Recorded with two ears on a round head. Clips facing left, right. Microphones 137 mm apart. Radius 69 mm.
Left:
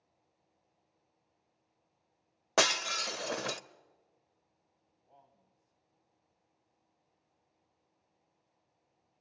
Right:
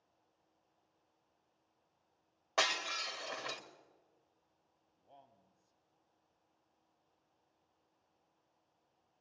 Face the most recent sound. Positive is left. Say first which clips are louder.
# right 2 dB
turn(degrees=-30)  # may be behind; listen again after turning